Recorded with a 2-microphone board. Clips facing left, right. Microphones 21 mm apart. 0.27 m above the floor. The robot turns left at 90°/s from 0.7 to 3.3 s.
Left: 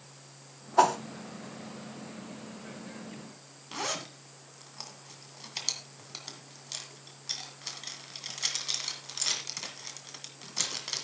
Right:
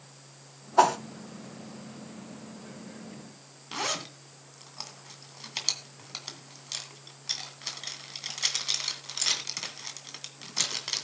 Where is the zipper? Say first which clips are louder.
Right 3 dB; 20° right (ahead or behind), 2 m.